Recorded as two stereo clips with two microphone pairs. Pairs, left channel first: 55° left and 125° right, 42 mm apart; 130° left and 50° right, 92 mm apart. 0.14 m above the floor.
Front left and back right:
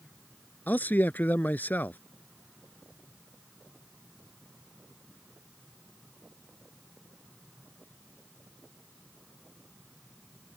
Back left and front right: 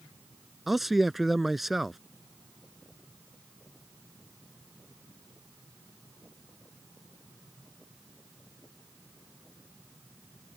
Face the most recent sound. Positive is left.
turn(degrees=40)